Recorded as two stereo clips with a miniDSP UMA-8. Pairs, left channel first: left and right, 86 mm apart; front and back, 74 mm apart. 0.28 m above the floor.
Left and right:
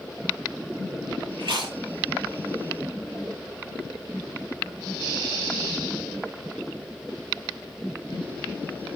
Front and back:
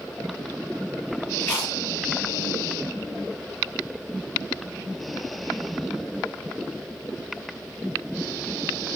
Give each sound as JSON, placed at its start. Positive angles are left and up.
{"t": 1.4, "sound": "chewing", "azimuth_deg": -75, "distance_m": 6.0}